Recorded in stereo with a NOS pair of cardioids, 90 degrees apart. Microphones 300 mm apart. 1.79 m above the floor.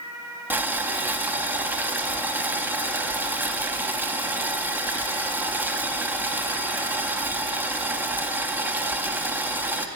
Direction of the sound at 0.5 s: 5° right.